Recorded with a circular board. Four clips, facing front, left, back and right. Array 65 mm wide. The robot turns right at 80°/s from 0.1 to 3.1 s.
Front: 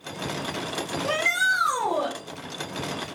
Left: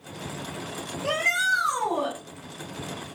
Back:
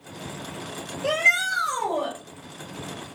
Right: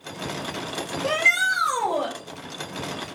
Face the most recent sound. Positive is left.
turn(degrees=20)